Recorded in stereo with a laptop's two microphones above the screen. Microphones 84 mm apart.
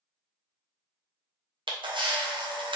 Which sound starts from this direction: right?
A camera shutter, at 1.7 s.